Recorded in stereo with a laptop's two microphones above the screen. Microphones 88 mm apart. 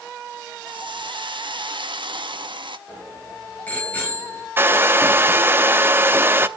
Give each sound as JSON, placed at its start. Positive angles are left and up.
{"t": 0.7, "sound": "a hiss", "side_deg": -65, "distance_m": 1.3}
{"t": 2.9, "sound": "a bicycle bell", "side_deg": 20, "distance_m": 9.0}
{"t": 4.6, "sound": "a hair dryer", "side_deg": -25, "distance_m": 0.8}